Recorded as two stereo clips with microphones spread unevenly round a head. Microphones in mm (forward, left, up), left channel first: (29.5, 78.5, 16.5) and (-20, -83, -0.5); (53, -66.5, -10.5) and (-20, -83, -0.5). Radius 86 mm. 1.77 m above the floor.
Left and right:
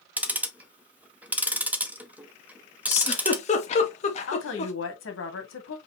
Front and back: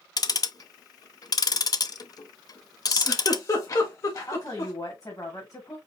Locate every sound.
0.2 s ticking: 25° right, 0.8 m
2.9 s a giggle: 55° left, 1.3 m
4.3 s a woman speaking: 85° left, 1.9 m